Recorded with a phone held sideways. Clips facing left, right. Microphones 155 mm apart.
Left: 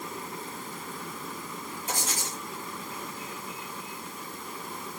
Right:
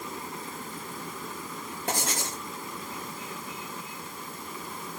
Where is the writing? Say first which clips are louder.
Right 4 dB; 65° right (ahead or behind), 5 m.